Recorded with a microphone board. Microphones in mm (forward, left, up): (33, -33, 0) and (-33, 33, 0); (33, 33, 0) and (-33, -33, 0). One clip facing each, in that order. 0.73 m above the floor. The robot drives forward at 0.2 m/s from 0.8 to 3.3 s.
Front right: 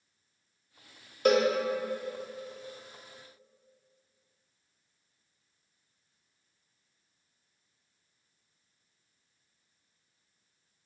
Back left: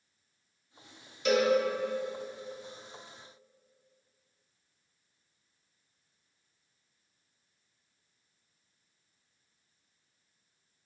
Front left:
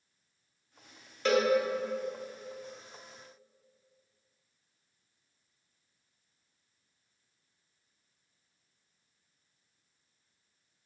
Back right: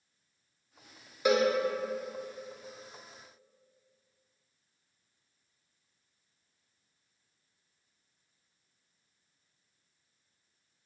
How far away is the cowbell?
About 0.5 m.